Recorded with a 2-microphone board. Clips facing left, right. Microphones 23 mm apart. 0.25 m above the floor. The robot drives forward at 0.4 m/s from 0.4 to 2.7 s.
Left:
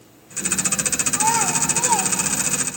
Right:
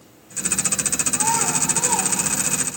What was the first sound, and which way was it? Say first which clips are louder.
A child speaking: left 2 dB; 20° left (ahead or behind).